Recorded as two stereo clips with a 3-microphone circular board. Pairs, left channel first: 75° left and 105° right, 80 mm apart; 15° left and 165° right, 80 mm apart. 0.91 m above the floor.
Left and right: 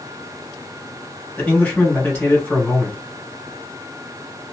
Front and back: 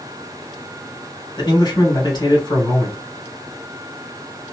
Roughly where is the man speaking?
Ahead.